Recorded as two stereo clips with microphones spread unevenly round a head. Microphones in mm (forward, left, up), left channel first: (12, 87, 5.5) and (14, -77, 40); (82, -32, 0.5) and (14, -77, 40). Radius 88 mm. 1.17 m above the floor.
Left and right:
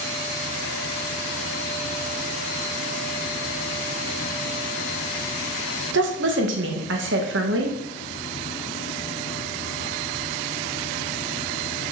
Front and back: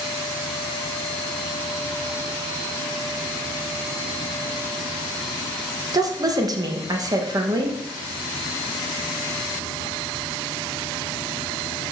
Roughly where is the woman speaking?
Right.